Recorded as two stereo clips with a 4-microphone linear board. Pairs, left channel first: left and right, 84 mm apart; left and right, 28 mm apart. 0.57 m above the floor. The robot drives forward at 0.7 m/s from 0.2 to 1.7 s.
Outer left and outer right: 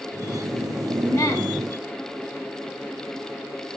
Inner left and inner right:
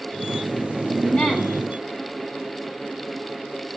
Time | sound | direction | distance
1.0 | a woman speaking | 35° left (ahead or behind) | 1.6 m